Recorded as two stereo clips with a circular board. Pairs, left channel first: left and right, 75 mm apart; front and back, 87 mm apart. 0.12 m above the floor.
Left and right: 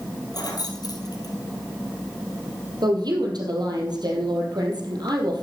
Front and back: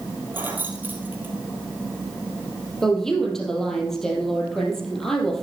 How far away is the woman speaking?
About 3 m.